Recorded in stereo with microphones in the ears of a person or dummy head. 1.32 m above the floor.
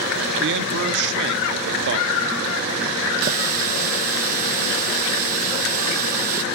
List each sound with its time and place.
0.4 s a man speaking: 65° right (ahead or behind), 0.6 m
3.2 s a running tap: 45° right (ahead or behind), 0.6 m